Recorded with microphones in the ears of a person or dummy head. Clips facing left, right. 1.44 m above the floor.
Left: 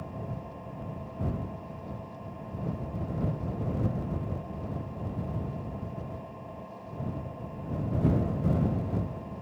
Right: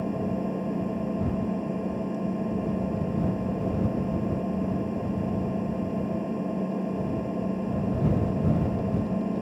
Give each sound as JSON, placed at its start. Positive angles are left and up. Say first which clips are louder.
{"t": 0.0, "sound": "an engine running", "louder": "right 12 dB", "side_deg": -85}